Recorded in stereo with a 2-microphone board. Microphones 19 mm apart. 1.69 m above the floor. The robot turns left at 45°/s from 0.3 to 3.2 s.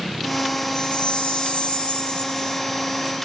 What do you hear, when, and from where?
0.8 s a chime: 125° left, 3 m; by 2.6 s 45° left, 3 m